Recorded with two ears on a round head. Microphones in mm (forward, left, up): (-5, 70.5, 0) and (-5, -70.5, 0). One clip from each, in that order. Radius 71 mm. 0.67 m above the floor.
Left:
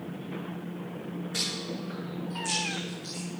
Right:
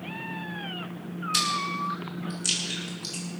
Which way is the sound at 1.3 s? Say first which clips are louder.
Right 7 dB; 80° right.